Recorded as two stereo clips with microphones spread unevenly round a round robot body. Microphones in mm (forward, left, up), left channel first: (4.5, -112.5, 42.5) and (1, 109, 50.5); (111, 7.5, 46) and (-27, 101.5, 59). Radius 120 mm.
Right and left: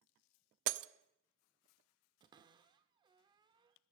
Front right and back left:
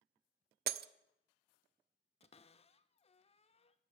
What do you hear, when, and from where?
0.7 s breaking glass: 115° left, 0.5 m
2.2 s a cupboard door: 20° left, 0.6 m